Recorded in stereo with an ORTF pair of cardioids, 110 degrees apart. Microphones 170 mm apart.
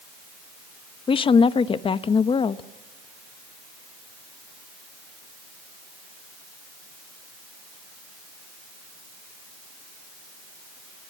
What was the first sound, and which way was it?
A woman speaking, 30° left.